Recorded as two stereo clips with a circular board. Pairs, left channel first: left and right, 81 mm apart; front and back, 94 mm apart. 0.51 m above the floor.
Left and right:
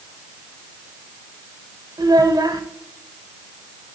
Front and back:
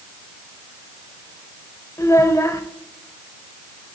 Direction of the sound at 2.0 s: 55° right.